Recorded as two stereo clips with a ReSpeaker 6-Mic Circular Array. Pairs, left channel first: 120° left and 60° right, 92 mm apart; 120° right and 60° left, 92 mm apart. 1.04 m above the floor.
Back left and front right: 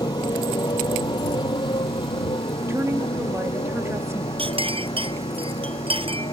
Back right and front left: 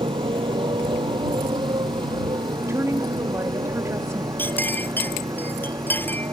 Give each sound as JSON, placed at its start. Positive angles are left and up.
{"t": 0.0, "sound": "a motorcycle", "azimuth_deg": 80}
{"t": 2.7, "sound": "a woman speaking", "azimuth_deg": 0}
{"t": 4.4, "sound": "a clink", "azimuth_deg": -50}